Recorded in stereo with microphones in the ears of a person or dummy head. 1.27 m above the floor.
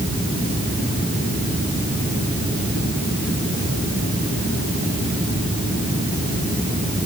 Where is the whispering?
I don't hear whispering.